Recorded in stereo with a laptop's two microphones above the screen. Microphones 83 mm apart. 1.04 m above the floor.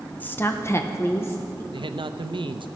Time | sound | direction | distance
0.2 | a woman speaking | 20° left (ahead or behind) | 0.9 m
1.7 | a man speaking | 75° right (ahead or behind) | 0.6 m